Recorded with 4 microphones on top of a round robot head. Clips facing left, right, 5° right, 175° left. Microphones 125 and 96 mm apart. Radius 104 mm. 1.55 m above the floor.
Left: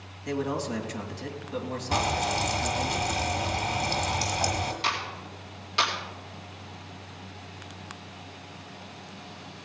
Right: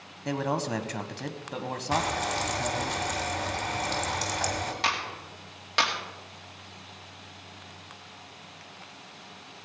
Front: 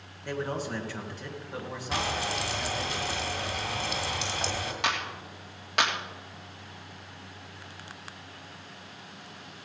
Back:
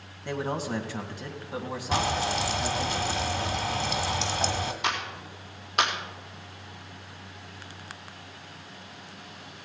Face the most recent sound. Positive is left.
turn(degrees=-45)